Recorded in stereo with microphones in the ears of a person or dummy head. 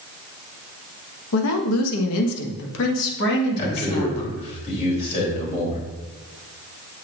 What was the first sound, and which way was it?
A woman speaking, 75° left (ahead or behind).